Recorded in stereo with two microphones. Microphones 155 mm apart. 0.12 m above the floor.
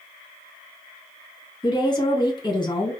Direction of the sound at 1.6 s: 30° left (ahead or behind).